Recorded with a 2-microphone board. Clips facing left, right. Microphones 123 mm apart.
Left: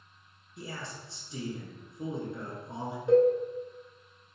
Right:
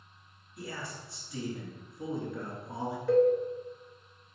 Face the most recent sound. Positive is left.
turn(degrees=25)  # may be behind; listen again after turning